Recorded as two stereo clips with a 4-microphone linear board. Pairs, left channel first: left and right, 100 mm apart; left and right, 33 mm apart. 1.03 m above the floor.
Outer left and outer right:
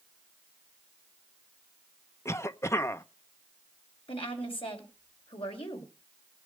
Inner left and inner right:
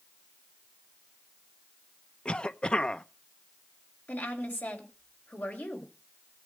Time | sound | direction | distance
2.2 | a cough | 30° left (ahead or behind) | 0.6 m
4.1 | a woman speaking | 65° left (ahead or behind) | 4 m